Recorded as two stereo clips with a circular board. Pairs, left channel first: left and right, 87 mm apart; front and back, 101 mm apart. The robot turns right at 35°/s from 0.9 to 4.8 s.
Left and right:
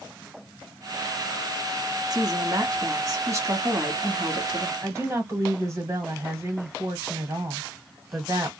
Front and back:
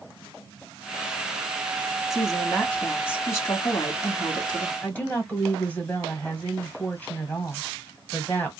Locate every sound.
2.1 s a woman speaking: 95° right, 1.7 m; by 4.7 s 5° right, 1.7 m
4.8 s a woman speaking: 65° right, 1.5 m